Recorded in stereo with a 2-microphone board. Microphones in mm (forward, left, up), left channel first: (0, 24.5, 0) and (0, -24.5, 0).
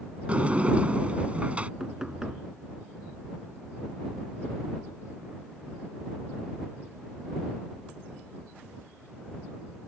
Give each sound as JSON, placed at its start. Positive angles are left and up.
{"t": 0.3, "sound": "a sliding door", "side_deg": -30}
{"t": 1.8, "sound": "knocking", "side_deg": -10}